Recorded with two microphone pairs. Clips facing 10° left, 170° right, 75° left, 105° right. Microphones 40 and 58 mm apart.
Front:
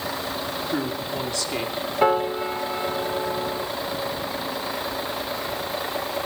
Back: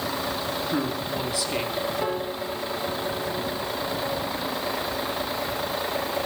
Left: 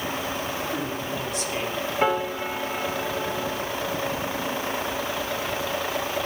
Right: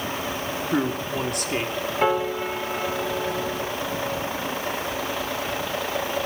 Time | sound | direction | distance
0.7 | a man speaking | 95° right | 2 m
2.0 | a piano | 15° right | 0.9 m